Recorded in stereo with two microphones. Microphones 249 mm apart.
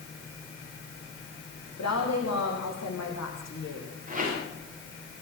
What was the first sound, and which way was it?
A woman speaking, 75° left (ahead or behind).